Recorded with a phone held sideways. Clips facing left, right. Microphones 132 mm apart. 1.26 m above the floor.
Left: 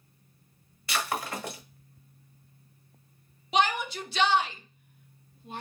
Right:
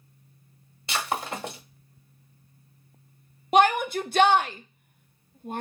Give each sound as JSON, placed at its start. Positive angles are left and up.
{"t": 0.9, "sound": "breaking glass", "side_deg": -25, "distance_m": 1.4}
{"t": 3.5, "sound": "a shout", "side_deg": -50, "distance_m": 0.6}